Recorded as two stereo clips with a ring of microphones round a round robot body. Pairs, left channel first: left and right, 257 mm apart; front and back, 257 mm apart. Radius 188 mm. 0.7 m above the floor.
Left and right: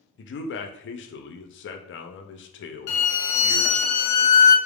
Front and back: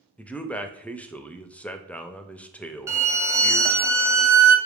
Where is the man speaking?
85° left, 0.6 m.